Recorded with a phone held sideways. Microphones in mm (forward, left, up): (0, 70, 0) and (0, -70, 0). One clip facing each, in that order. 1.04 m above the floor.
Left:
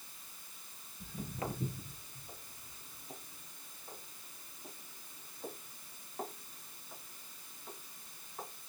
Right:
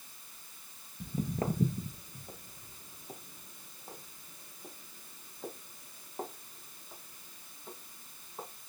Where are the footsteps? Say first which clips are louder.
Right 7 dB; 40° right (ahead or behind), 1.4 m; by 8.5 s 20° right (ahead or behind), 6 m.